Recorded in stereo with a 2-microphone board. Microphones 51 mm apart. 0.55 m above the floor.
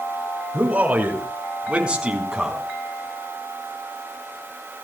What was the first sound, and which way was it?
A man speaking, 30° right (ahead or behind).